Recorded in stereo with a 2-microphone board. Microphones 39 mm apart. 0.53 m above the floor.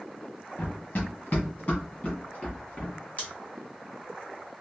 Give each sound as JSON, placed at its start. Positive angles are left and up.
{"t": 0.6, "sound": "running footsteps", "side_deg": 50, "distance_m": 1.4}
{"t": 3.2, "sound": "scissors", "side_deg": 35, "distance_m": 1.7}